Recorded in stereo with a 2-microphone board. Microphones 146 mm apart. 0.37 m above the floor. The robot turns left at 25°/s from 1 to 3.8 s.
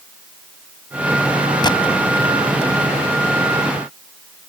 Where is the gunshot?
35° left (ahead or behind).